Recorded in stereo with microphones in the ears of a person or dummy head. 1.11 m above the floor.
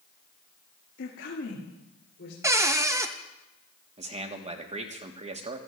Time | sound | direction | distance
1.0 | a woman speaking | 60° left (ahead or behind) | 2 m
2.4 | a cupboard door | 15° right (ahead or behind) | 0.9 m
4.0 | a man speaking | 30° right (ahead or behind) | 1.7 m